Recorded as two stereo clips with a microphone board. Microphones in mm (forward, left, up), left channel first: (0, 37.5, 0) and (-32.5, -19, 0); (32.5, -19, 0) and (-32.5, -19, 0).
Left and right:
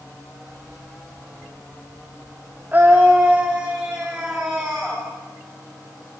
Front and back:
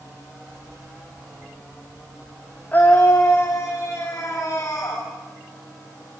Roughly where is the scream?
Ahead right.